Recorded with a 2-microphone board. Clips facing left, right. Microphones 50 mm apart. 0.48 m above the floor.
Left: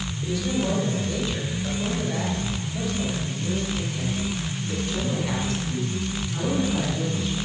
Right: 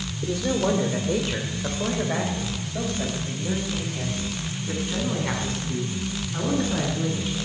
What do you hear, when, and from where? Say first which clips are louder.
0.2 s a man speaking: right 2 dB; 45° right (ahead or behind), 1.8 m; by 7.3 s 20° right (ahead or behind), 6.5 m